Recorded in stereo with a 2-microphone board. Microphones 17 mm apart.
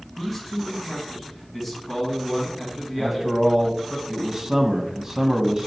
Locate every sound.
0.2 s a man speaking: 5° left (ahead or behind), 1.9 m
3.0 s a man speaking: 25° right (ahead or behind), 1.0 m